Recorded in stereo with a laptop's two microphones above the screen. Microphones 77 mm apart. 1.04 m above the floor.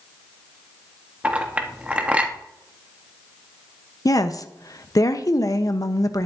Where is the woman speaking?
50° left (ahead or behind), 0.8 m.